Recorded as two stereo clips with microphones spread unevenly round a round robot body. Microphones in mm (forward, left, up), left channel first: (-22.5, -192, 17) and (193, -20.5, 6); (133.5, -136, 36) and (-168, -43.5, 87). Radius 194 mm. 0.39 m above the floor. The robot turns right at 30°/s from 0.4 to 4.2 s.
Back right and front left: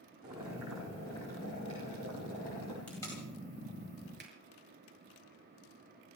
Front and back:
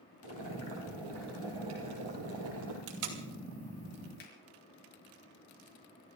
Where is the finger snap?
15° right, 5.5 m.